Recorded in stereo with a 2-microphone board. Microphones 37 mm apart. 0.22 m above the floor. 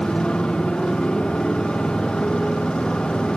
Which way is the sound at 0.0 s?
20° left (ahead or behind).